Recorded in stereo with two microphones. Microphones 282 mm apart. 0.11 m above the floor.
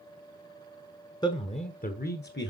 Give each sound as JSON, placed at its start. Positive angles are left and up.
{"t": 1.2, "sound": "a man speaking", "side_deg": 15, "distance_m": 1.1}